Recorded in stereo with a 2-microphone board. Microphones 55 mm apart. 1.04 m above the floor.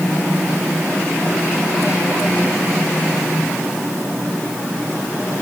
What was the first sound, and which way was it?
Only background noise.